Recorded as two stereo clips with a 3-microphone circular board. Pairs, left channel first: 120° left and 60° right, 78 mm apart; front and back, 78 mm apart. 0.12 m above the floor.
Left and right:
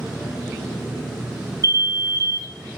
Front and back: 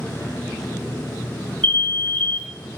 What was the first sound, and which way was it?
An alarm, 60° right.